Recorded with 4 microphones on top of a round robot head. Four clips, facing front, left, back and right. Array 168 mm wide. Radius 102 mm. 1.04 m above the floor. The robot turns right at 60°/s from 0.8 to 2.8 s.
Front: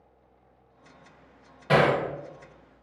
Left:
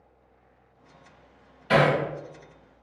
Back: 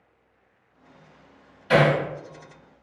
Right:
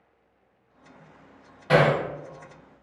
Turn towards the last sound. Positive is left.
turn(degrees=25)